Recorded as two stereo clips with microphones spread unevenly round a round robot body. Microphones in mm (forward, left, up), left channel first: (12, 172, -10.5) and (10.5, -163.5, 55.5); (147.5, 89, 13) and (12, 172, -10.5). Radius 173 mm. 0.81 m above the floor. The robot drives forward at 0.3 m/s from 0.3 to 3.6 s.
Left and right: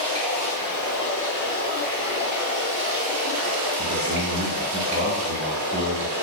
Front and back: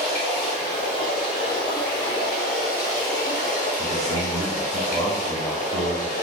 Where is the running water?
20° right, 1.4 m; by 6.2 s 55° right, 0.6 m.